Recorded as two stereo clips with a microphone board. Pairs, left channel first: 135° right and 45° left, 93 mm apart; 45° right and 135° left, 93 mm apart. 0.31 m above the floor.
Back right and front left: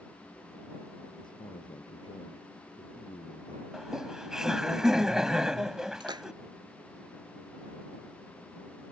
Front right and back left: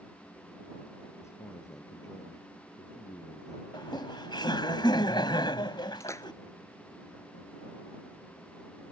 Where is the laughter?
35° right.